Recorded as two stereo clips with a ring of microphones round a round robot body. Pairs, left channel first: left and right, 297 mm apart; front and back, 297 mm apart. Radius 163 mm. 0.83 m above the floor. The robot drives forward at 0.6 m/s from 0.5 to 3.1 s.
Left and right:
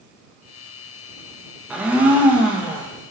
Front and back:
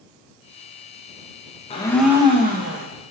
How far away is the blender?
About 0.6 m.